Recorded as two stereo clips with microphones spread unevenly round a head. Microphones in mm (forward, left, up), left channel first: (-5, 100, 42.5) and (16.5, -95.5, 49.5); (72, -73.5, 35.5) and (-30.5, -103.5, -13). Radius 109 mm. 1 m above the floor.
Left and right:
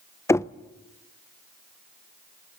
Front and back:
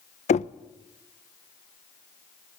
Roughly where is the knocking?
Ahead left.